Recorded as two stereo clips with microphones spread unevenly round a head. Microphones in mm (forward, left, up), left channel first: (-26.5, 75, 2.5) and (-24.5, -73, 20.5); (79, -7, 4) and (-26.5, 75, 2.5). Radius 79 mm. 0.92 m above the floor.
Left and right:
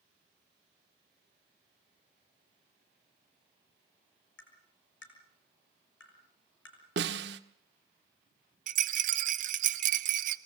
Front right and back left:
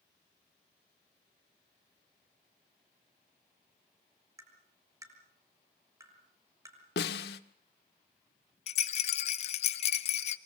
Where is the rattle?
65° right, 1.3 m.